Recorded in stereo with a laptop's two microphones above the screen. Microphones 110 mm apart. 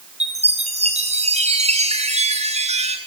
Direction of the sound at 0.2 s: 85° right.